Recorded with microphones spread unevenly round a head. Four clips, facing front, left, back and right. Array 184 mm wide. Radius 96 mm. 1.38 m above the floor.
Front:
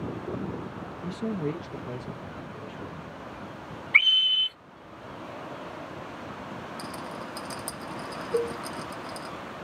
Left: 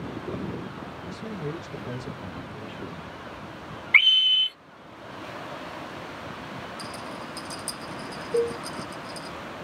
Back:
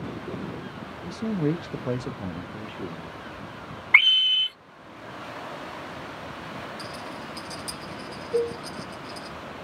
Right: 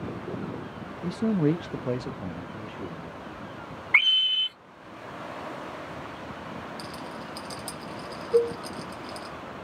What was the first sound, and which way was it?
A man speaking, 85° right.